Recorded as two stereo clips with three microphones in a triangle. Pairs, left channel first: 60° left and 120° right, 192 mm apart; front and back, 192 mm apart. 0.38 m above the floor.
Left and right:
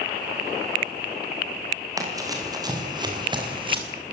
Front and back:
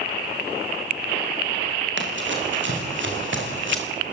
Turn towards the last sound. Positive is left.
turn(degrees=180)